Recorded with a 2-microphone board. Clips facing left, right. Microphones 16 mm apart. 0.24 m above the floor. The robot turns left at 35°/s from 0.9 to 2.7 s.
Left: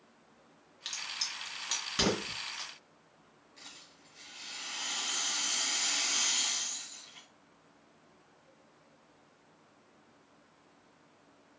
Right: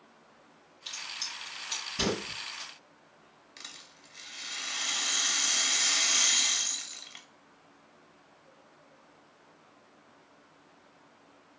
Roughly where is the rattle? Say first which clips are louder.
Right 5 dB; right.